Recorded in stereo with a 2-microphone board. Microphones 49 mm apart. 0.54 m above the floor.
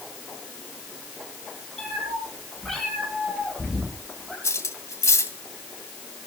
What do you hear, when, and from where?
1.8 s a cat meowing: 5° left (ahead or behind), 9.5 m; by 4.3 s 5° right (ahead or behind), 10.5 m
4.4 s cutlery clinking: 80° left, 2 m